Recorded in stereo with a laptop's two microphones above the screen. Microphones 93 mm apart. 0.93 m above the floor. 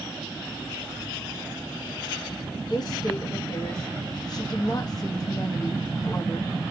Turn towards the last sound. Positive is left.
turn(degrees=40)  # may be behind; listen again after turning